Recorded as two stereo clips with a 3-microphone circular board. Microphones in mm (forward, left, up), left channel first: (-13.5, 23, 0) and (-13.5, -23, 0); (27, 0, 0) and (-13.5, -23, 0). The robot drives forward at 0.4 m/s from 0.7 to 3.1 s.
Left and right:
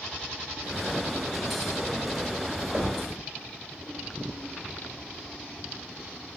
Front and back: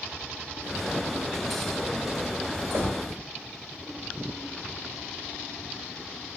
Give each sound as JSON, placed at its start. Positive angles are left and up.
{"t": 2.7, "sound": "knocking", "azimuth_deg": -155, "distance_m": 0.8}